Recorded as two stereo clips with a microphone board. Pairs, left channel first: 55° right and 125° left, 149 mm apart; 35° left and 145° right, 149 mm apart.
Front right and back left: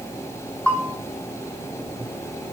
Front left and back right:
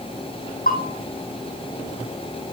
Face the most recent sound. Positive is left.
turn(degrees=25)